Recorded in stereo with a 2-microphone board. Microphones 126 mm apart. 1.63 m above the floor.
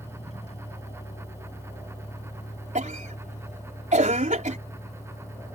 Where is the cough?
80° right.